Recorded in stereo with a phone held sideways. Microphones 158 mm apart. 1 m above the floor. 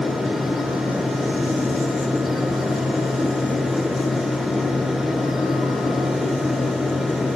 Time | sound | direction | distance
0.0 | a fan | centre (ahead or behind) | 1.0 m